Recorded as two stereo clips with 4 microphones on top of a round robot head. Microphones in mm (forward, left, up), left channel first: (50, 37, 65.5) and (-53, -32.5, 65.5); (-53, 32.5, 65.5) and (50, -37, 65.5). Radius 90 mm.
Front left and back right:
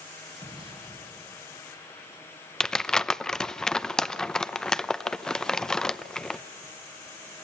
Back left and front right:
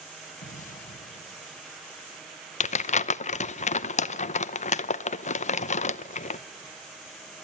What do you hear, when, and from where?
0.4 s an explosion: 165° left, 1.5 m
2.6 s crumpling: 120° left, 0.8 m